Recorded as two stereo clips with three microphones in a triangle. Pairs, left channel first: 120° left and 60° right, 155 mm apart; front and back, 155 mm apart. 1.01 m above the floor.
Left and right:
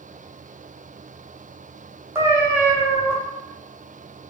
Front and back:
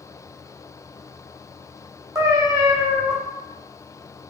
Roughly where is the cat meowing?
Behind right.